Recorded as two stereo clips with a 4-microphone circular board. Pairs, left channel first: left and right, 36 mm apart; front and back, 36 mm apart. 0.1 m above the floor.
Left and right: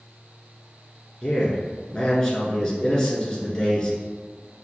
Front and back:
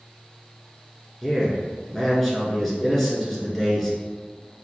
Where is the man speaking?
70° left, 1.1 m.